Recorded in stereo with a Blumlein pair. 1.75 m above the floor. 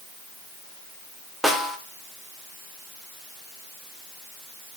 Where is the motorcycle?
I don't hear a motorcycle.